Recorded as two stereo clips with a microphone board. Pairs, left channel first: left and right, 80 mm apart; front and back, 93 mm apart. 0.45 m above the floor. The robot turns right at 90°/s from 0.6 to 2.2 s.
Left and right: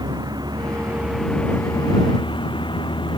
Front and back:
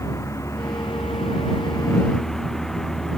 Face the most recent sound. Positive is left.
turn(degrees=85)